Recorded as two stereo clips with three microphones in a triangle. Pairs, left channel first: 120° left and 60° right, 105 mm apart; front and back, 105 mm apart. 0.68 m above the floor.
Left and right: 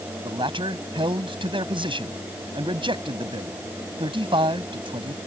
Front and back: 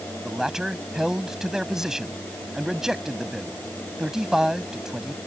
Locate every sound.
0.2 s a man speaking: 95° right